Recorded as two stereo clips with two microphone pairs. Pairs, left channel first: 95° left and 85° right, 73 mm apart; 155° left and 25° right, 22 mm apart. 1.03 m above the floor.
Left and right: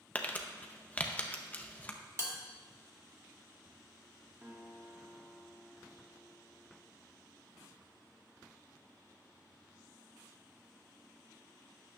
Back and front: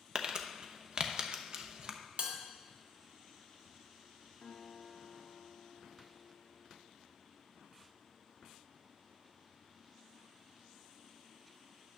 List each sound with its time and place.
0.1 s crumpling: 25° left, 0.7 m
2.2 s a bell: 40° right, 1.4 m
4.4 s a guitar: 145° right, 2.5 m